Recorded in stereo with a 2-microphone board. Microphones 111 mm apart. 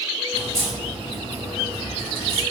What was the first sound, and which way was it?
A crack, 50° right (ahead or behind).